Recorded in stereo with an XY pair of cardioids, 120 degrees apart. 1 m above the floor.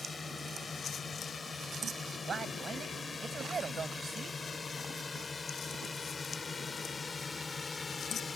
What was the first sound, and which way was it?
A drone, 25° left.